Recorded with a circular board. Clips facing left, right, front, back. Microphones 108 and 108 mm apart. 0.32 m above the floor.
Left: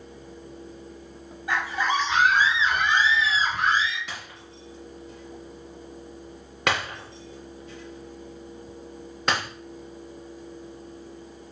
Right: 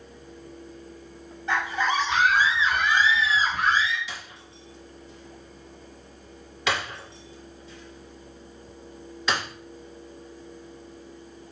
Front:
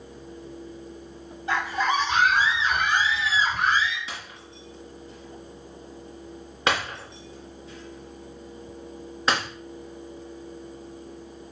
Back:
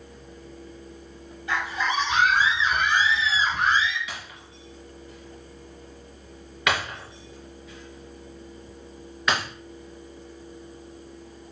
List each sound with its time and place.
1.5 s a scream: 15° left, 1.7 m; by 4.0 s 35° left, 3 m
4.1 s breaking glass: 55° left, 3.5 m